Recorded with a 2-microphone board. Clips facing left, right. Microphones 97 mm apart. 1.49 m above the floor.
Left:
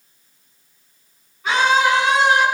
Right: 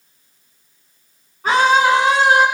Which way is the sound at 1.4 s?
45° right (ahead or behind).